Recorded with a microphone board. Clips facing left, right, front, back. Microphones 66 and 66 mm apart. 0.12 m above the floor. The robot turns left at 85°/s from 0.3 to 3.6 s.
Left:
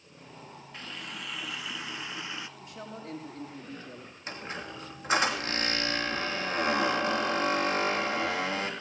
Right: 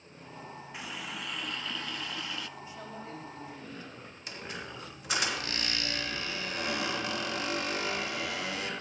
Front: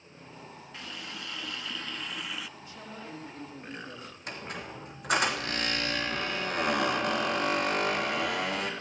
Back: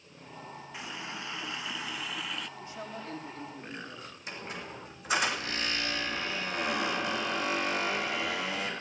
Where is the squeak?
35° left, 3 m.